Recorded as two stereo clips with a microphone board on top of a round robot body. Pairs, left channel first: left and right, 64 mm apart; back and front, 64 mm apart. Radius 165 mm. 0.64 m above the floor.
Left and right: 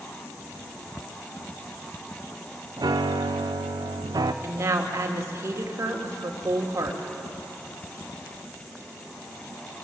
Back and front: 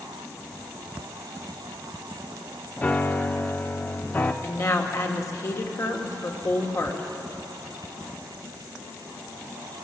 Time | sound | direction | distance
2.8 | a piano | 115° right | 0.5 m
4.4 | a woman speaking | 140° right | 2 m